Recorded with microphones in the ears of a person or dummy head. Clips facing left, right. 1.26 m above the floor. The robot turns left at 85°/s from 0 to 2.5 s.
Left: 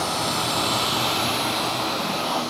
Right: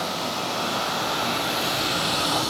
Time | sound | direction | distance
0.0 | running water | 125° left | 3 m